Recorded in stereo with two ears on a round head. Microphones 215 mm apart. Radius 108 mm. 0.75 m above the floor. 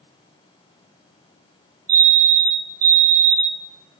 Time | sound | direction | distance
1.9 | a fire alarm | 40° right (ahead or behind) | 3 m